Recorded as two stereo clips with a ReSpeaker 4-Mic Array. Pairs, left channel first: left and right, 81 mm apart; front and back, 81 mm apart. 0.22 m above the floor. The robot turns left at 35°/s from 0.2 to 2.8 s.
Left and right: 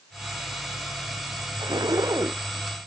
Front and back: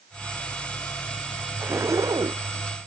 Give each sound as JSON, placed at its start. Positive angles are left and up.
{"t": 1.6, "sound": "a zipper", "azimuth_deg": -120}